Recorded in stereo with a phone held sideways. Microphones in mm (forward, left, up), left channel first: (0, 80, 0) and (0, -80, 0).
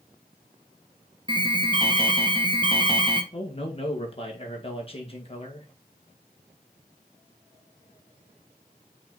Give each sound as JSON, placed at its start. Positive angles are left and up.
{"t": 1.3, "sound": "an alarm", "side_deg": -30, "distance_m": 1.2}
{"t": 3.3, "sound": "a man speaking", "side_deg": 35, "distance_m": 1.8}